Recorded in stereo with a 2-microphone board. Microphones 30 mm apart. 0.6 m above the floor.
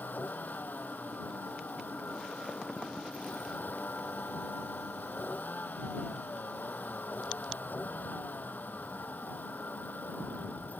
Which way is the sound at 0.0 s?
90° left.